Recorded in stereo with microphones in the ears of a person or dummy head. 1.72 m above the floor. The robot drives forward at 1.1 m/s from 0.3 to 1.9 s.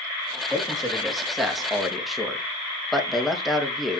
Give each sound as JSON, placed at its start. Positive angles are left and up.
{"t": 0.5, "sound": "a man speaking", "side_deg": 0, "distance_m": 4.0}